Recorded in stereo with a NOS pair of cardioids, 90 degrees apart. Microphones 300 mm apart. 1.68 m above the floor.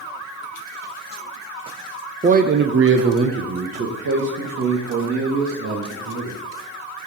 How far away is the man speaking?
About 0.9 m.